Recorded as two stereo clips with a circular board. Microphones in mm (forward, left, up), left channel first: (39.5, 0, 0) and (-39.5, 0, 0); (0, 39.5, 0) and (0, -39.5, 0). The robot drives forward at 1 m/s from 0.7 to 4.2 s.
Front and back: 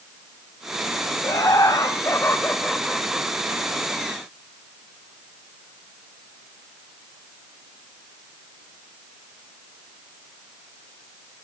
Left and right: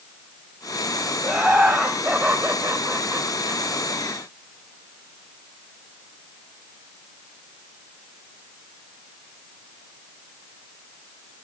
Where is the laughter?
15° right, 2 m; by 3.6 s 140° right, 1.4 m.